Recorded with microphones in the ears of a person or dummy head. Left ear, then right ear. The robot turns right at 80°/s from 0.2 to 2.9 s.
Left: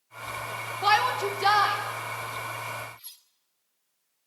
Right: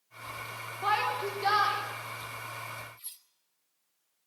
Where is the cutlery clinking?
5° left (ahead or behind), 1.5 m.